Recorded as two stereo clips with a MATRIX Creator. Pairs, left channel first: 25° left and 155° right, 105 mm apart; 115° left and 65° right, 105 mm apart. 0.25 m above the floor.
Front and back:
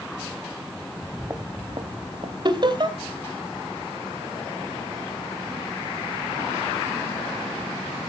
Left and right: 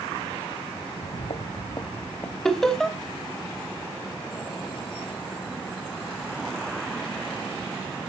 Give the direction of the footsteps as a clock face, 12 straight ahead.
8 o'clock.